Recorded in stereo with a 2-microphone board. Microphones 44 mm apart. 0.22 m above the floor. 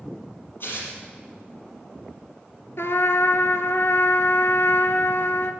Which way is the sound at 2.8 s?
70° left (ahead or behind).